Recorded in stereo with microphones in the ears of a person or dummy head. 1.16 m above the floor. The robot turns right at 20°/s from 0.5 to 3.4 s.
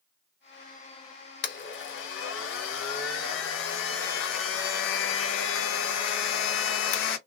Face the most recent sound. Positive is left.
turn(degrees=110)